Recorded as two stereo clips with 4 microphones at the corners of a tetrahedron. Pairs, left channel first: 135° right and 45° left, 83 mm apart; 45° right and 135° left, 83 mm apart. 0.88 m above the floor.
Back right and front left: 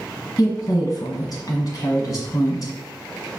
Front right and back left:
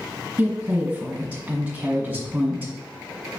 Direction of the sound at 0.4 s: 160° right.